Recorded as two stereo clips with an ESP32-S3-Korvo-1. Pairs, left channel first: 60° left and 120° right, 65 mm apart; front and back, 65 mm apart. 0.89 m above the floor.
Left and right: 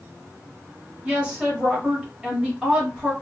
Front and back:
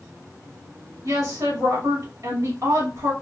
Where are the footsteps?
I don't hear footsteps.